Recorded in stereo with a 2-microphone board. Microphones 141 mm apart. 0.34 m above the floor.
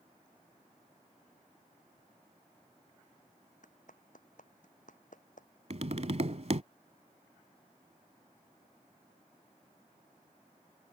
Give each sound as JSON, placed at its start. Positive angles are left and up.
{"t": 3.6, "sound": "a clap", "side_deg": 65}
{"t": 5.7, "sound": "tapping", "side_deg": -50}